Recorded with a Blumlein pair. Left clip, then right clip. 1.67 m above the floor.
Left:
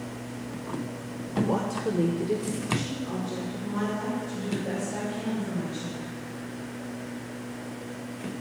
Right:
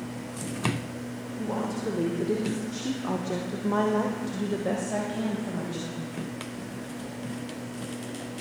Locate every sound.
1.4 s a woman speaking: 20° left, 1.2 m; by 6.2 s 75° right, 2 m